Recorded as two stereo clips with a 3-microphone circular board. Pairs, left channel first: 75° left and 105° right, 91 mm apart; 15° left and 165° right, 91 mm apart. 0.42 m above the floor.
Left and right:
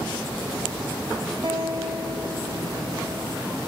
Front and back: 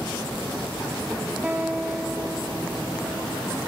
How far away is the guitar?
About 5 m.